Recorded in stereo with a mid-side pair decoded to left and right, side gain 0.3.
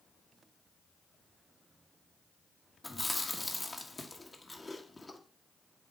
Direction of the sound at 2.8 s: 25° left.